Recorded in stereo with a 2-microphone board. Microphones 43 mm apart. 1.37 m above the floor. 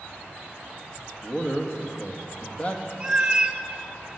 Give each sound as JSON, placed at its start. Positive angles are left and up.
{"t": 1.2, "sound": "a man speaking", "side_deg": 30, "distance_m": 1.6}
{"t": 3.0, "sound": "a cat meowing", "side_deg": -15, "distance_m": 1.1}